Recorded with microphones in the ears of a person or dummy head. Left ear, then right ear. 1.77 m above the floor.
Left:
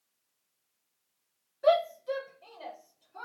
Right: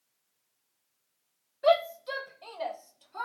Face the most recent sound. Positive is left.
turn(degrees=-60)  # may be behind; listen again after turning